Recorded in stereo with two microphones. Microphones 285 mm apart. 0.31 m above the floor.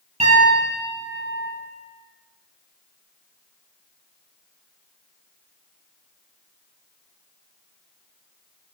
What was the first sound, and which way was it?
A piano, 25° right (ahead or behind).